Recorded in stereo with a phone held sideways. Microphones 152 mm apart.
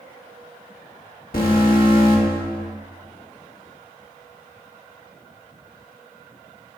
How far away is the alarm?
About 2 m.